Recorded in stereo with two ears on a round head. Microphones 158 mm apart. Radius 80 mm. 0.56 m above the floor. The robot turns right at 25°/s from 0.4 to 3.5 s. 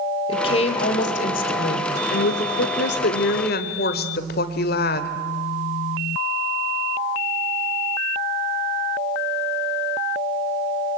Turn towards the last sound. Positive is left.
turn(degrees=110)